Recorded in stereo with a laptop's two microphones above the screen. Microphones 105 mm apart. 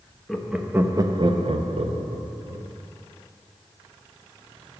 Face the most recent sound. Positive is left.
turn(degrees=-70)  # may be behind; listen again after turning